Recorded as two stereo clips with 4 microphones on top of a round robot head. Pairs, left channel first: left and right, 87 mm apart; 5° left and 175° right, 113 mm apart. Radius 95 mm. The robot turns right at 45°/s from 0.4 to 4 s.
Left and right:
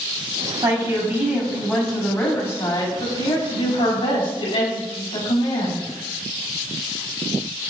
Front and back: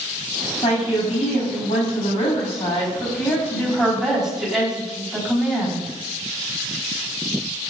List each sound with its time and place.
0.6 s a woman speaking: 55° right, 4 m; by 5.8 s 100° left, 4 m